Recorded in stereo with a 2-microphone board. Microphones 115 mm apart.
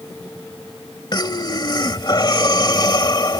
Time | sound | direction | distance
1.1 | breathing | 40° left (ahead or behind) | ?